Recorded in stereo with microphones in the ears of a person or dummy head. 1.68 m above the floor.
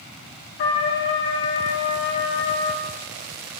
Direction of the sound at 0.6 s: 55° left (ahead or behind).